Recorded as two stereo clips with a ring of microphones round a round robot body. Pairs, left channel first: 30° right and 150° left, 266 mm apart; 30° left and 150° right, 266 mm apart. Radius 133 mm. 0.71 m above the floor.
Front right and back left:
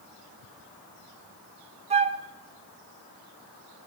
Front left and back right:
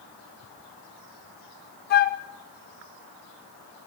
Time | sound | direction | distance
1.9 | a flute | 85° left | 0.6 m